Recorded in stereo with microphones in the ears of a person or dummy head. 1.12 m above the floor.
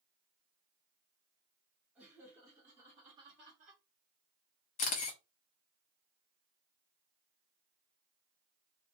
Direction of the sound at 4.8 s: 35° left (ahead or behind).